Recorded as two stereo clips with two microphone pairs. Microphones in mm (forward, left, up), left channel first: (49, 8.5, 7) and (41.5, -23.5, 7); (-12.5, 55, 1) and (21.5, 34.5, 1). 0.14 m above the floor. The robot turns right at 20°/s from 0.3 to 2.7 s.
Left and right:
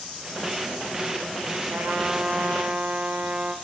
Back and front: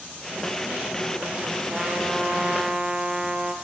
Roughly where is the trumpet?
Right.